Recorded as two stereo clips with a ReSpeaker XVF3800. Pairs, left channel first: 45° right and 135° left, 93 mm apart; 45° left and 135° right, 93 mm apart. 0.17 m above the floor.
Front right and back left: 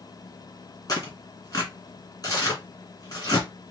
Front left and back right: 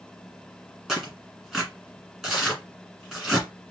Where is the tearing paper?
55° right, 1.8 m.